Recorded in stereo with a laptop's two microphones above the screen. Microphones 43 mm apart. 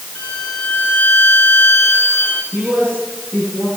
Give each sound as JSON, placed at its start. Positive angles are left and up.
{"t": 0.1, "sound": "a violin", "side_deg": 60, "distance_m": 2.5}
{"t": 2.5, "sound": "a man speaking", "side_deg": -70, "distance_m": 10.0}